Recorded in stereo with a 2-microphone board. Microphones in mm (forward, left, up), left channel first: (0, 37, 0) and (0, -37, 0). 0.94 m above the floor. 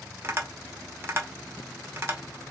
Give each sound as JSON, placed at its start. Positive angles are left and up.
{"t": 0.2, "sound": "tapping", "side_deg": -35, "distance_m": 0.8}